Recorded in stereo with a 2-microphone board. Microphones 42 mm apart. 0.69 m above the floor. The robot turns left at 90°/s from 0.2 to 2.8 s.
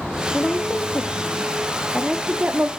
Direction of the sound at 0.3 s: 30° left (ahead or behind).